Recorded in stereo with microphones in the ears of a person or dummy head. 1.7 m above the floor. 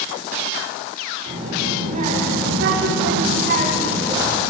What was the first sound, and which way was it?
A child speaking, 40° right (ahead or behind).